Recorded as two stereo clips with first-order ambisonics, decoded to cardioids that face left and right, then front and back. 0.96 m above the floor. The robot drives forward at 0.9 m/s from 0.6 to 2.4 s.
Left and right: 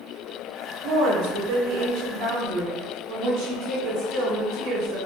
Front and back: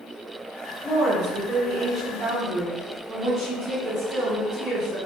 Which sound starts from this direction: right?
A woman speaking, at 0.8 s.